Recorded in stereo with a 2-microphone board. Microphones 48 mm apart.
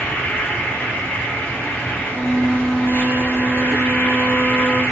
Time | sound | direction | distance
0.0 | an insect | 30° left (ahead or behind) | 1.7 m
2.1 | a flute | 40° left (ahead or behind) | 1.9 m